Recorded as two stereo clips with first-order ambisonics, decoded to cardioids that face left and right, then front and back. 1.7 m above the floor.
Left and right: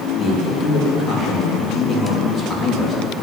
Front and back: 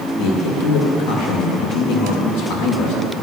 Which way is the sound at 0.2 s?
25° left.